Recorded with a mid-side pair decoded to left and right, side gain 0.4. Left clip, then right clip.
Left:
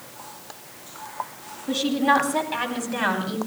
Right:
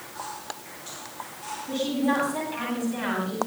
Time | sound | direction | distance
1.7 | a woman speaking | 70° left | 10 m